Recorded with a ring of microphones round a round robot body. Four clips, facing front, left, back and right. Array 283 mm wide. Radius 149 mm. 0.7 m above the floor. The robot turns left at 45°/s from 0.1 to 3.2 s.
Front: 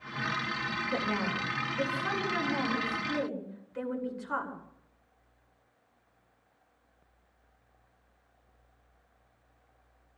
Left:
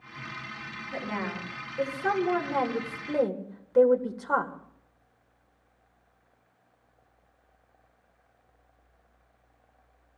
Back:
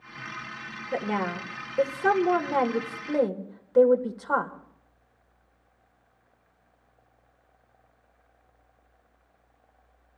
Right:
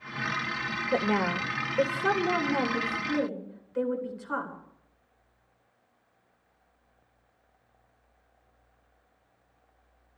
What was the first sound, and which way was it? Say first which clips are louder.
A woman speaking: right 7 dB, back 6 dB; 110° right.